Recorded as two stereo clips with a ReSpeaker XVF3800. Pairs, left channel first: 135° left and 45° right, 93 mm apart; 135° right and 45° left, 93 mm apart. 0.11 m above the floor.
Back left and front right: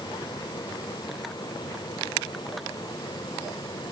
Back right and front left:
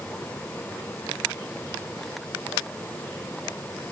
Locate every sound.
Only background noise.